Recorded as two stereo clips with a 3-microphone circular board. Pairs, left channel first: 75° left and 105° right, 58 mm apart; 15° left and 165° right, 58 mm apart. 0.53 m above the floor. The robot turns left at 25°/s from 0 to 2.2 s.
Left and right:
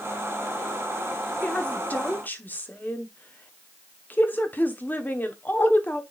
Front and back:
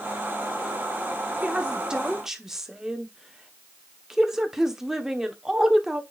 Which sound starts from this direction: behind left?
A woman speaking, at 1.4 s.